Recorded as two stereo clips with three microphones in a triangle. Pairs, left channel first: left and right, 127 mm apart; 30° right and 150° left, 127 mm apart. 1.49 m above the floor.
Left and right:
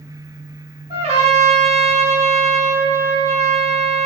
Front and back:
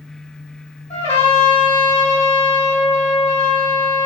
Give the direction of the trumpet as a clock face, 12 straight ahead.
2 o'clock.